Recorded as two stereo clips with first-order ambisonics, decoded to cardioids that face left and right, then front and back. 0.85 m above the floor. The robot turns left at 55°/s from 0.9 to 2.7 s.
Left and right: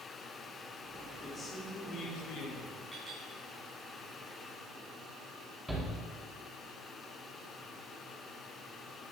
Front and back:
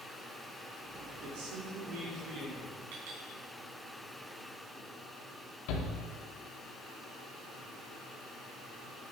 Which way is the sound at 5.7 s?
5° right.